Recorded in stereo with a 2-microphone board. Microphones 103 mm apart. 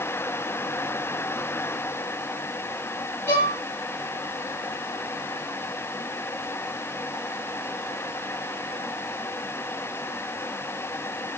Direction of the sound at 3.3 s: 20° left (ahead or behind).